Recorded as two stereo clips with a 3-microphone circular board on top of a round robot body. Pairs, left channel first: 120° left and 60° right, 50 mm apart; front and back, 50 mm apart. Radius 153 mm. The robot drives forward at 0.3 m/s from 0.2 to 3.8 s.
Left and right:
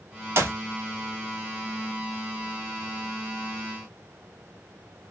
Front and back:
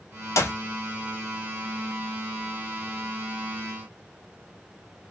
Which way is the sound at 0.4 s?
25° right.